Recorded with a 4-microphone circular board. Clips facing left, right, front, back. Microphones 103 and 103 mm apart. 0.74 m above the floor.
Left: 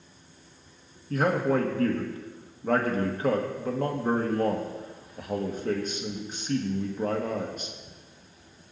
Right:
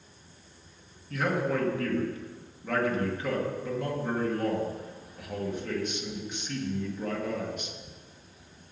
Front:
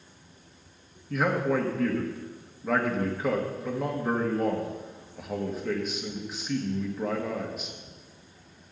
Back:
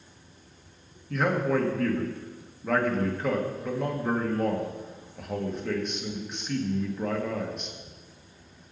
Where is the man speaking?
85° left, 1.3 m.